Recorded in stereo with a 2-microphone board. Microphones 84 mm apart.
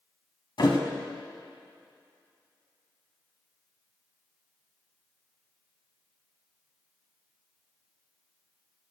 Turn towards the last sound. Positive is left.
turn(degrees=65)  # may be behind; listen again after turning